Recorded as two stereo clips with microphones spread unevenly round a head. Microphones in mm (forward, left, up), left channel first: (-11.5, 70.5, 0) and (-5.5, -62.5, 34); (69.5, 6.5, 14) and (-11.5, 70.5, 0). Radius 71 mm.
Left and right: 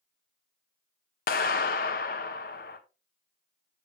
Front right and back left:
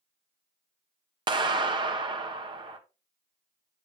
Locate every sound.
1.3 s a clap: 110° left, 1.3 m